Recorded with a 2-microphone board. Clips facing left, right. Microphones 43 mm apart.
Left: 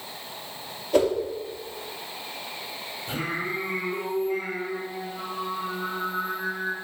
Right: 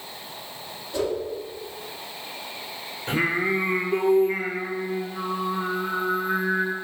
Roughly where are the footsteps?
No footsteps in this recording.